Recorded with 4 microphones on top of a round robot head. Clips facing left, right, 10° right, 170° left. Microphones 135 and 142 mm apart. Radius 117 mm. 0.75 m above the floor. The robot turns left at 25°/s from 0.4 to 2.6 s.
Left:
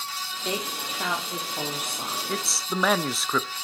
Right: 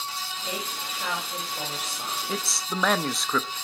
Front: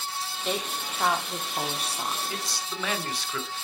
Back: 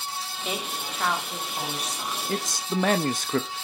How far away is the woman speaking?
About 2 m.